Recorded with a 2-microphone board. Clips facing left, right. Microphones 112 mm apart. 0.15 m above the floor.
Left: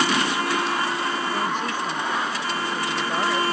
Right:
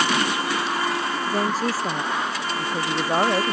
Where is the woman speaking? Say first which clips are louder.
Right 2 dB; 35° right (ahead or behind).